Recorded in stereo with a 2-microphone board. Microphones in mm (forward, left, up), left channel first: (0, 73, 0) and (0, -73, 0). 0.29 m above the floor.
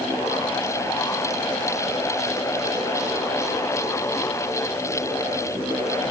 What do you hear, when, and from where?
Only background noise.